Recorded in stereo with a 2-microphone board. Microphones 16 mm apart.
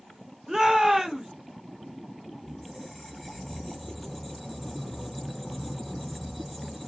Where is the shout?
30° right (ahead or behind), 0.9 m.